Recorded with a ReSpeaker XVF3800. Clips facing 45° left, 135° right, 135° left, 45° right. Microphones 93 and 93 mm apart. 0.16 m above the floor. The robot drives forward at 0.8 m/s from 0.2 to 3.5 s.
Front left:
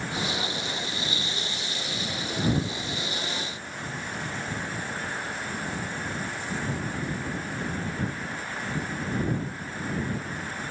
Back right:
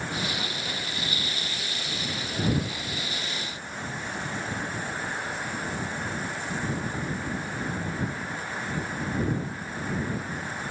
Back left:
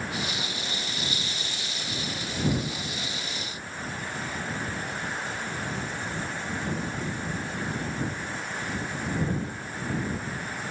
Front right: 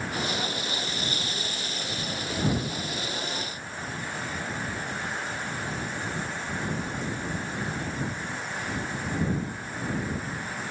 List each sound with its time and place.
Only background noise.